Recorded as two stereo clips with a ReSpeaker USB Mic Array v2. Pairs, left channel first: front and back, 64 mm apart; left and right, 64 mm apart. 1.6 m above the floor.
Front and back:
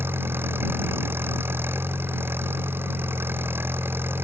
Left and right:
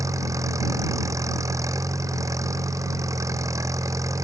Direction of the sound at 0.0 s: 125° right.